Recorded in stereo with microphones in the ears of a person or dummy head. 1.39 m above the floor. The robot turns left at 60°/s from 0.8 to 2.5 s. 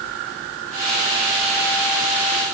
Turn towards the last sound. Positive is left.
No sound to turn to.